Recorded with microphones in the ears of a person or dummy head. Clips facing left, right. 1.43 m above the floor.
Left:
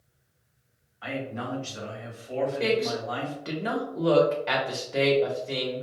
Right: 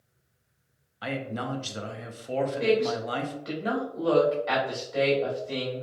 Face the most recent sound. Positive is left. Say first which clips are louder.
# right 2 dB
turn(degrees=35)  # may be behind; listen again after turning